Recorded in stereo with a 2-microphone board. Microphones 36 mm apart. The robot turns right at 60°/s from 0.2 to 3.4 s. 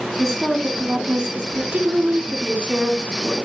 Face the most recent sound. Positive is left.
turn(degrees=10)